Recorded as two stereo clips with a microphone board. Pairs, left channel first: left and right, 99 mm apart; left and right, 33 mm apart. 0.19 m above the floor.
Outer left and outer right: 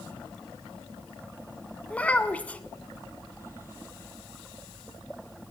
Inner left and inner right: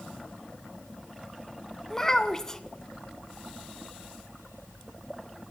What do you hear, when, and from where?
1.9 s a child speaking: 15° left (ahead or behind), 0.9 m